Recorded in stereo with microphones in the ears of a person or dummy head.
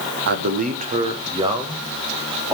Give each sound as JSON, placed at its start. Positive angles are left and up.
{"t": 0.3, "sound": "a man speaking", "side_deg": -70, "distance_m": 1.2}